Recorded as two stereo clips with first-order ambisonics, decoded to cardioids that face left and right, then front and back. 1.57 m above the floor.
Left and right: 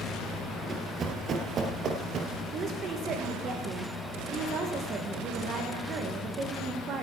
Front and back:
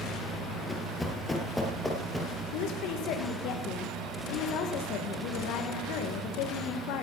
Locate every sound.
0.7 s running footsteps: 55° right, 1.6 m; by 2.4 s 95° right, 2 m
2.5 s a woman speaking: 35° right, 1.6 m